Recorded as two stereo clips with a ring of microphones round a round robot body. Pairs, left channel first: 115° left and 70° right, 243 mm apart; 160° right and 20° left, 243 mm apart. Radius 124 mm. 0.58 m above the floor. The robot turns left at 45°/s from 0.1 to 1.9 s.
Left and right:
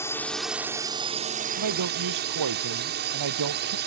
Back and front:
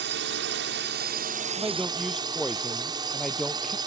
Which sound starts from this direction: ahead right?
A man speaking, at 1.6 s.